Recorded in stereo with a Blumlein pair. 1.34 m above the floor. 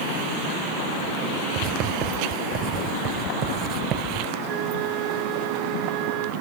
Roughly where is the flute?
Ahead right.